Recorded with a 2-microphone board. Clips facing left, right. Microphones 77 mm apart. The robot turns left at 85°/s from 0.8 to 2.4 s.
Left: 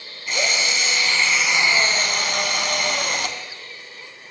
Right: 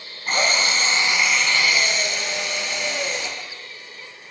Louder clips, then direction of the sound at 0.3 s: Right 2 dB; 135° right.